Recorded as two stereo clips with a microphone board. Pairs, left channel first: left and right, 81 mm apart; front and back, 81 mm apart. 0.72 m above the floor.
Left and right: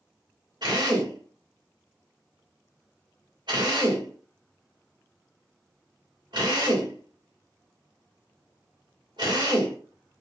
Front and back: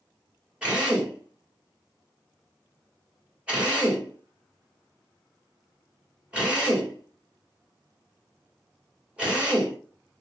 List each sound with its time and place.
0.6 s a drill: 105° right, 1.6 m